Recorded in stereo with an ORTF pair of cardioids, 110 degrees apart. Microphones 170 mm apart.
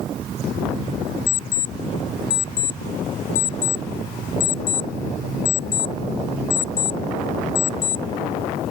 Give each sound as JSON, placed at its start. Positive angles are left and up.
{"t": 1.3, "sound": "an alarm clock", "azimuth_deg": 55}